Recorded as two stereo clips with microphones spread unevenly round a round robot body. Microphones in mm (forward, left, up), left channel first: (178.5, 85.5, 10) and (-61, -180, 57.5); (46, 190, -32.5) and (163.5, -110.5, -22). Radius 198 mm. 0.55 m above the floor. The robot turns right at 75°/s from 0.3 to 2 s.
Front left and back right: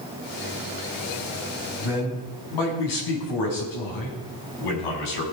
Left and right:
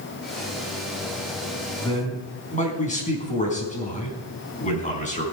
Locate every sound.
1.8 s a man speaking: 30° left, 5 m; by 5.2 s 45° left, 5 m